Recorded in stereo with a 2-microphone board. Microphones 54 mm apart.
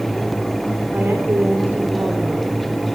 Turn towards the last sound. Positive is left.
turn(degrees=-40)  # may be behind; listen again after turning